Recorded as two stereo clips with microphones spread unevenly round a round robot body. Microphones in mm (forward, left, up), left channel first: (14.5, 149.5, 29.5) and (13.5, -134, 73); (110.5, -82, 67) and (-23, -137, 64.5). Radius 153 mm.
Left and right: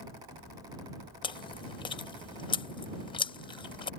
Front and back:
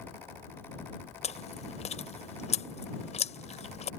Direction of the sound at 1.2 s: 30° left.